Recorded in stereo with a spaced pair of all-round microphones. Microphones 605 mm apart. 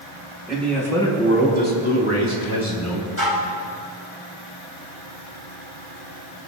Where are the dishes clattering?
25° left (ahead or behind), 5.5 m.